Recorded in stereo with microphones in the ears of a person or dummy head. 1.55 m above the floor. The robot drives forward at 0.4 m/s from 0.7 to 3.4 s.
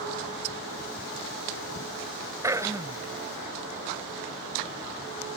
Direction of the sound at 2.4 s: 15° right (ahead or behind).